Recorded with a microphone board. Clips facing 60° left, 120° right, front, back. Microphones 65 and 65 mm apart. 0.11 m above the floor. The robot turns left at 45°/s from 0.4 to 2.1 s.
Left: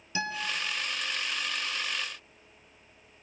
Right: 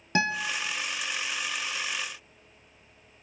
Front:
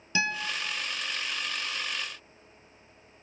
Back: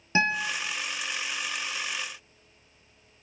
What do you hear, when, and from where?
0.1 s a guitar: 125° right, 1.0 m; by 0.6 s 135° right, 1.0 m